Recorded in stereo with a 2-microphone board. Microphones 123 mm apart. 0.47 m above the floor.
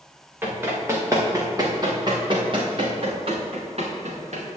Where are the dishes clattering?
No dishes clattering in this recording.